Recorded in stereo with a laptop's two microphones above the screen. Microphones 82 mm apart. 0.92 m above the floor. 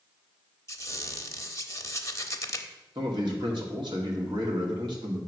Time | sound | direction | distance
0.7 | a squeak | 40° left (ahead or behind) | 0.8 m
3.0 | a man speaking | 75° right (ahead or behind) | 2.0 m